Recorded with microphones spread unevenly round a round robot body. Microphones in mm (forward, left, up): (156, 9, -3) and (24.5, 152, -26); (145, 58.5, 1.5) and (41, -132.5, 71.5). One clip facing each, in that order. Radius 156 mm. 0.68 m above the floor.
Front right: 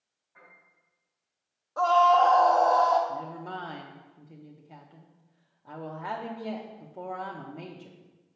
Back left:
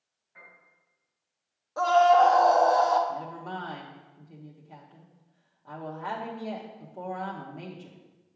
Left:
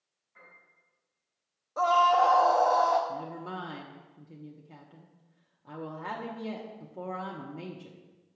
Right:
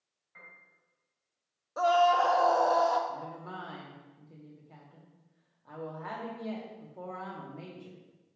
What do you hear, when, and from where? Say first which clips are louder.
0.3 s a piano: back left 1 dB, left 1 dB; 150° right, 3.5 m
1.8 s a scream: back left 2 dB, right 1 dB; 130° left, 0.5 m
3.1 s a woman speaking: even, left 4 dB; 35° left, 1.0 m